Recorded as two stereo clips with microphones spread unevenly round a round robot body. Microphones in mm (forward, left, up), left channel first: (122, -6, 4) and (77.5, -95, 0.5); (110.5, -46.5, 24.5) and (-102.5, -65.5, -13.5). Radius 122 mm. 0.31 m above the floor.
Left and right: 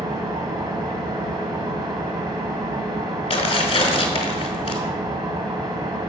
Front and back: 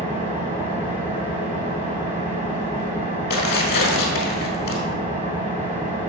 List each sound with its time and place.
0.0 s an engine running: 105° right, 1.8 m
3.3 s tearing paper: 60° left, 1.2 m